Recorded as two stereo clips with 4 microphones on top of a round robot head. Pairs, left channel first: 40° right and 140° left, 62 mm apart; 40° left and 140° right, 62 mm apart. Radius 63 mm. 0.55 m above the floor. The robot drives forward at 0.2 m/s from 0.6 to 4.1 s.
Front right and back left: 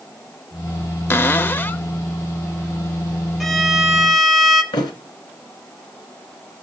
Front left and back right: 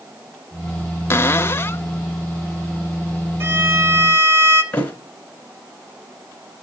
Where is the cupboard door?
5° left, 0.8 m.